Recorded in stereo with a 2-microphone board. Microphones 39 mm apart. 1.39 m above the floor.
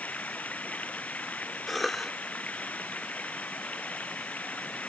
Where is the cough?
Centre (ahead or behind).